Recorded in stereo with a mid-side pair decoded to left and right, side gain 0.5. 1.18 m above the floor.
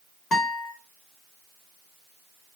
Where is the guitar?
45° left, 1.5 m.